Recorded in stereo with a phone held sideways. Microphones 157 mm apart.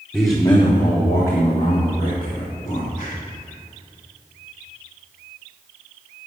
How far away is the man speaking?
About 1.1 m.